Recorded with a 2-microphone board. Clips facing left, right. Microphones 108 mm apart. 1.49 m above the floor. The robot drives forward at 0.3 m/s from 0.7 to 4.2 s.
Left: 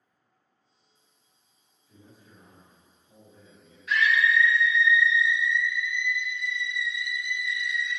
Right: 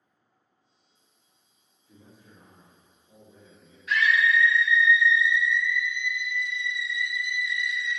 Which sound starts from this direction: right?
A man speaking, at 1.9 s.